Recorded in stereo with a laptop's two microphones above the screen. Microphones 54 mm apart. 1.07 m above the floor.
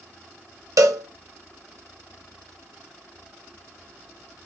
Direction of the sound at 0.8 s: 70° right (ahead or behind).